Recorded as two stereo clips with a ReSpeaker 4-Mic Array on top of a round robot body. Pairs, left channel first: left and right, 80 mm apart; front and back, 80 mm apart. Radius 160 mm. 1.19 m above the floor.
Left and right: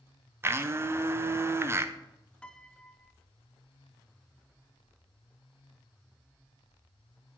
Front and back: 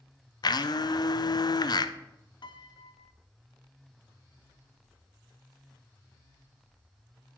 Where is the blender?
30° right, 0.7 m.